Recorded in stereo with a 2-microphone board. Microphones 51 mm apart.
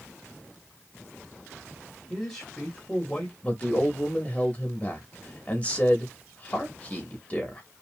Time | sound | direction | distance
2.1 | a man speaking | 10° left (ahead or behind) | 1.5 m
3.4 | a man speaking | 30° left (ahead or behind) | 1.3 m